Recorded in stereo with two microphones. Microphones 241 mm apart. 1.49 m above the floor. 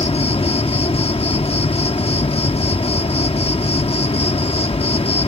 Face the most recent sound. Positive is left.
turn(degrees=25)  # may be behind; listen again after turning